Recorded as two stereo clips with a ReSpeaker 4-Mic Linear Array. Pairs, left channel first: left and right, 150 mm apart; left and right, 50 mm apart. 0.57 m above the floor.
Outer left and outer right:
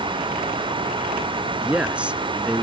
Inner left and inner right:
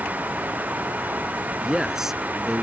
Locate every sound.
1.6 s a man speaking: 10° right (ahead or behind)